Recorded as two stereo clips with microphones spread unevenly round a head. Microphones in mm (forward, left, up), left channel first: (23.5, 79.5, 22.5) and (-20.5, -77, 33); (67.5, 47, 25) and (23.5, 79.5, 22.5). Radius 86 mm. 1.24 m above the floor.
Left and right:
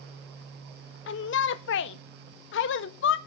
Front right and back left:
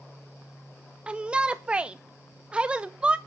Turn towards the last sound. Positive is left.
turn(degrees=70)